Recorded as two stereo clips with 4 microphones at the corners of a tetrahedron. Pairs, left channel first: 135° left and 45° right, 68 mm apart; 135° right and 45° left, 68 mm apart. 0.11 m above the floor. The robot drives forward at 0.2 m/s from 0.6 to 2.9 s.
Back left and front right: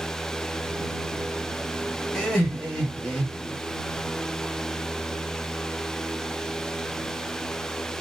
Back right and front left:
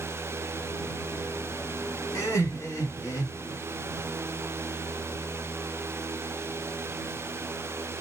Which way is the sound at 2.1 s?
140° right.